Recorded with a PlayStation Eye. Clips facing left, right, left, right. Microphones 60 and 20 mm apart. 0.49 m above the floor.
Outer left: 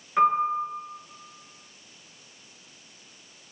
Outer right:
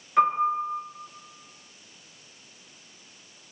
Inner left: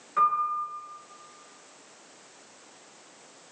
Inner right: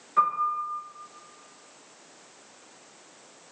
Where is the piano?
5° left (ahead or behind), 1.0 m.